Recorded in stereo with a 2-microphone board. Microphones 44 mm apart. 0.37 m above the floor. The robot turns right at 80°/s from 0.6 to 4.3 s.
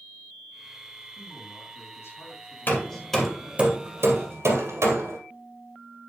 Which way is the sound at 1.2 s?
35° left.